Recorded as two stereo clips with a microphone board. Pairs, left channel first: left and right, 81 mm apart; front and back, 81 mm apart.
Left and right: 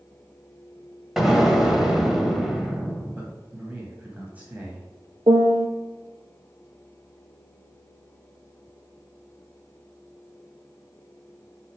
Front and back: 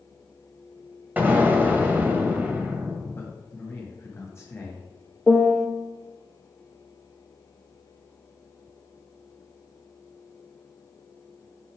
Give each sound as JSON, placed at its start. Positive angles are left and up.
{"t": 1.2, "sound": "an explosion", "azimuth_deg": -165, "distance_m": 1.3}
{"t": 3.1, "sound": "a man speaking", "azimuth_deg": -30, "distance_m": 1.9}
{"t": 5.3, "sound": "a piano", "azimuth_deg": -85, "distance_m": 0.9}